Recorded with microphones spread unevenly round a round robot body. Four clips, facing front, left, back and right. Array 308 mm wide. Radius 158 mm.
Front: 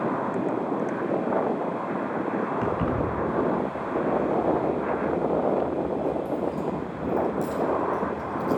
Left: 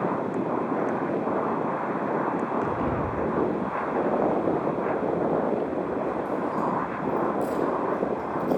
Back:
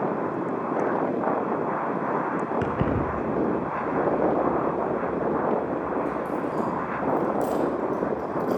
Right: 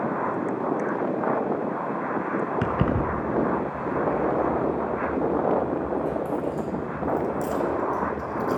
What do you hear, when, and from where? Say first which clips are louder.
2.6 s keys jangling: right 2 dB, even; 110° right, 4.5 m; by 8.6 s 70° right, 4.5 m